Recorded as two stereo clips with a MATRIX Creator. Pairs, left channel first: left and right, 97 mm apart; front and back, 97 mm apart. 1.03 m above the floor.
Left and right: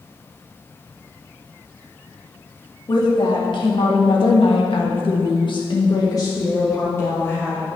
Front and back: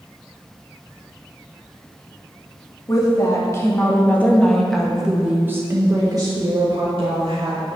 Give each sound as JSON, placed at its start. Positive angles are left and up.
{"t": 2.9, "sound": "a woman speaking", "azimuth_deg": 50, "distance_m": 2.5}